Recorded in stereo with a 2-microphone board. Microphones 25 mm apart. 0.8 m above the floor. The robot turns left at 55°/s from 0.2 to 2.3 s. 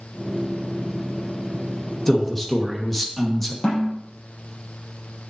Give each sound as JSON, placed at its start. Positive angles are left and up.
{"t": 2.1, "sound": "a man speaking", "side_deg": 20, "distance_m": 1.3}
{"t": 3.6, "sound": "a snare drum", "side_deg": 50, "distance_m": 3.5}